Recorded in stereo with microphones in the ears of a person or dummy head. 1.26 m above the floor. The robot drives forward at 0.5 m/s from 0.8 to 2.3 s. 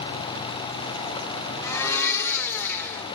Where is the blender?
15° left (ahead or behind), 1.6 m.